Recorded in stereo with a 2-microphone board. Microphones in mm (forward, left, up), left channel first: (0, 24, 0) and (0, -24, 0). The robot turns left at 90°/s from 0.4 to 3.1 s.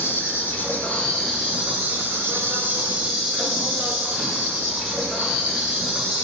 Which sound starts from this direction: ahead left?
An insect, at 0.0 s.